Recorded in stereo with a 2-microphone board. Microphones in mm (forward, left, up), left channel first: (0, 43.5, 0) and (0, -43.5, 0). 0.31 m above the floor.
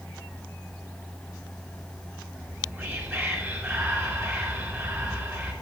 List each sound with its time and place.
2.4 s whispering: 25° right (ahead or behind), 4 m